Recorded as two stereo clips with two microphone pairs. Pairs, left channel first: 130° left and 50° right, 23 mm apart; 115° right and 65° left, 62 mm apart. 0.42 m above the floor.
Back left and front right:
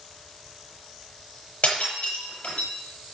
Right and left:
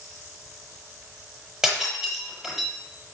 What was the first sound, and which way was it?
Breaking glass, 145° left.